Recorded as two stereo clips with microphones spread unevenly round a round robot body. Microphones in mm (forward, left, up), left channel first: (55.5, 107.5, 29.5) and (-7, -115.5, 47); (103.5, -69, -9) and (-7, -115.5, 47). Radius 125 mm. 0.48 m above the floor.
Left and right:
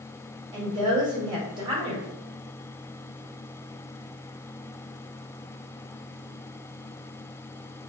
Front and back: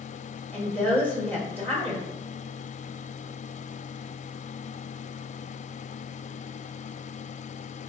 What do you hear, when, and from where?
0.5 s a woman speaking: 35° right, 1.4 m